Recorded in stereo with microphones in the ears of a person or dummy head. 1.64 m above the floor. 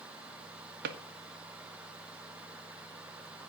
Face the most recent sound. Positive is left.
turn(degrees=-60)  # may be behind; listen again after turning